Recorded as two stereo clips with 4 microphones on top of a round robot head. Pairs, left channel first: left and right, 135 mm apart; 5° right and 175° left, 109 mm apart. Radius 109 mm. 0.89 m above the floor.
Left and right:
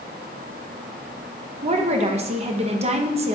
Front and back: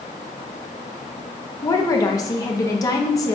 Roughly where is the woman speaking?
Ahead right.